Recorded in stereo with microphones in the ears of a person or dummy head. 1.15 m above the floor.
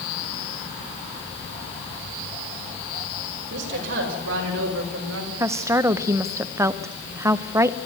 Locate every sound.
3.5 s a woman speaking: 70° right (ahead or behind), 6.5 m; by 5.3 s 80° right, 4.5 m
5.4 s a woman speaking: 15° right (ahead or behind), 0.6 m